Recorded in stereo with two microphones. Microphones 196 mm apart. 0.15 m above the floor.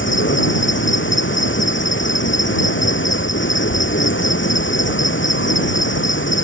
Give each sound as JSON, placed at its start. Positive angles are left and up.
{"t": 0.0, "sound": "an insect", "side_deg": 80}